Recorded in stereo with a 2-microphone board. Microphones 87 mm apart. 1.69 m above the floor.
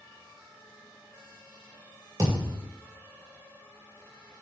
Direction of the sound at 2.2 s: 40° right (ahead or behind).